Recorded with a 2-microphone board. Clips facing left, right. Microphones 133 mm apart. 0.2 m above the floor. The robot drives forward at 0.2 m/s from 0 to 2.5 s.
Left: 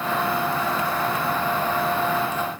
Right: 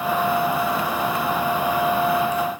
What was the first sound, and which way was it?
Only background noise.